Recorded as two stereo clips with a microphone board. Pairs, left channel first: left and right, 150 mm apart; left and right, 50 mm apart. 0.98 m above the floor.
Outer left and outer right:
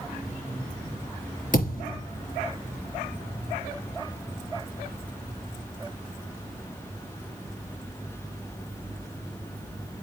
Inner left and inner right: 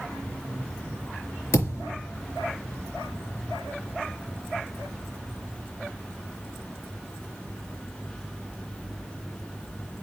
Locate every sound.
1.5 s a thud: 60° left (ahead or behind), 4 m